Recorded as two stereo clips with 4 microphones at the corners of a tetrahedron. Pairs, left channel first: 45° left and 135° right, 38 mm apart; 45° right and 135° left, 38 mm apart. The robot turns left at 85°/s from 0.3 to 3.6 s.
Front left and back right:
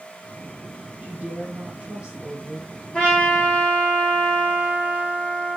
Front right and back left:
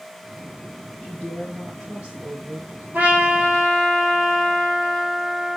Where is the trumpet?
115° left, 3.5 m; by 5.6 s 55° left, 3.5 m.